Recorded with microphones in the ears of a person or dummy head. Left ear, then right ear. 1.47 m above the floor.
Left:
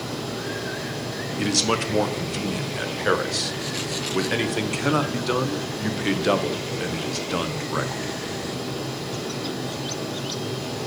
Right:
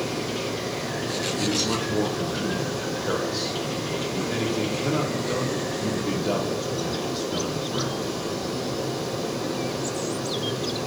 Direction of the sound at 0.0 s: 10° left (ahead or behind).